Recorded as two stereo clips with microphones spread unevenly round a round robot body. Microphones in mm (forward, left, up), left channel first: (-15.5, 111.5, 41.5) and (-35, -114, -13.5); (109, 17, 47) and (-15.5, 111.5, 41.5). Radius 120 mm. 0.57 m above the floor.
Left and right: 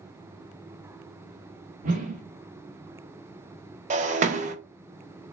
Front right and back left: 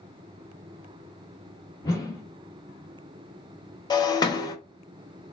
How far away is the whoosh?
About 0.7 m.